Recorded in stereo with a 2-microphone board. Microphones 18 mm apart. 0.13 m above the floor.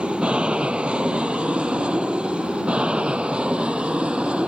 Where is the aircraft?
70° right (ahead or behind).